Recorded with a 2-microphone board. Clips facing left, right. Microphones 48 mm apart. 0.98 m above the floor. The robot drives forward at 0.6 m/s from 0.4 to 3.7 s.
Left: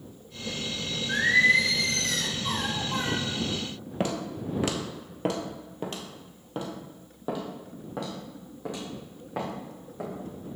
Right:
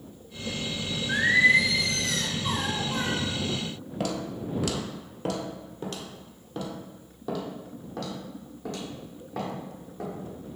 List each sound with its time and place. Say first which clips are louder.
1.1 s singing: right 1 dB; 10° right (ahead or behind), 0.6 m; by 3.2 s 5° right (ahead or behind), 1.8 m
4.0 s footsteps: left 1 dB; 35° left (ahead or behind), 1.1 m; by 10.1 s 15° left (ahead or behind), 3.5 m